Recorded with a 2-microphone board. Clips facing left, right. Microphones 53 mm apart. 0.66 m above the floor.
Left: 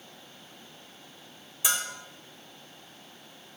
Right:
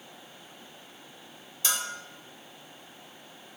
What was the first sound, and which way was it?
A bell, 15° left (ahead or behind).